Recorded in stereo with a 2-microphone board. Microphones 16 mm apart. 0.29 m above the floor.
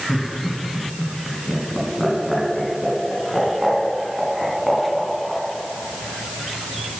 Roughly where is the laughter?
Centre.